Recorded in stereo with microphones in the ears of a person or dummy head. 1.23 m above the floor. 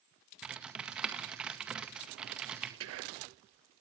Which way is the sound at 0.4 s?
5° right (ahead or behind).